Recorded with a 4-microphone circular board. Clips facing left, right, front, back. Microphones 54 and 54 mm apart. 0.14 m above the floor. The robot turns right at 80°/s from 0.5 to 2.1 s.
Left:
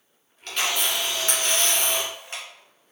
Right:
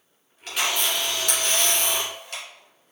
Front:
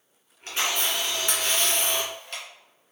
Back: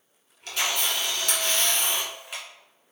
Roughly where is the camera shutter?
Ahead.